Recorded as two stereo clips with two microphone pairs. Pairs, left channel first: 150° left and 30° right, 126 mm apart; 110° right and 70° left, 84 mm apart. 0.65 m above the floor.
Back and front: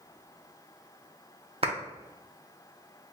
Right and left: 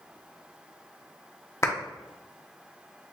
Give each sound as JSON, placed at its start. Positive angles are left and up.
{"t": 1.6, "sound": "a clap", "azimuth_deg": -60, "distance_m": 0.7}